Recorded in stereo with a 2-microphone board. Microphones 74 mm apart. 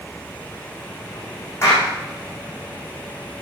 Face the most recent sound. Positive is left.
turn(degrees=35)  # may be behind; listen again after turning